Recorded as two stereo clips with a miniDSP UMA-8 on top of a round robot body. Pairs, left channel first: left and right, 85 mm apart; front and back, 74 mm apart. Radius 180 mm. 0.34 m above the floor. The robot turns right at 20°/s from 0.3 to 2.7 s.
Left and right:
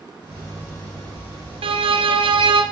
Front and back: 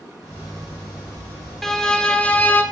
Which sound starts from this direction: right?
A violin, at 1.6 s.